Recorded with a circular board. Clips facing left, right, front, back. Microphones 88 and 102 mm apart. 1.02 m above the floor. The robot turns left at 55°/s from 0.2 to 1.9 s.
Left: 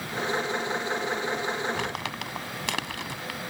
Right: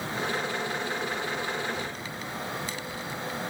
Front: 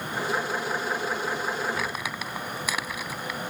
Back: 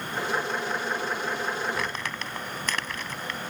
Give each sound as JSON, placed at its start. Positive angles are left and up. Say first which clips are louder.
{"t": 1.7, "sound": "crumpling", "louder": "left 3 dB, even", "azimuth_deg": 90}